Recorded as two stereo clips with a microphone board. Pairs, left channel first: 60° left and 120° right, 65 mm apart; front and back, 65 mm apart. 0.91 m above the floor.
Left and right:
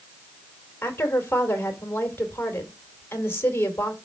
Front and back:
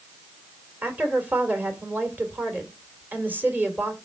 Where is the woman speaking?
120° left, 2.5 m.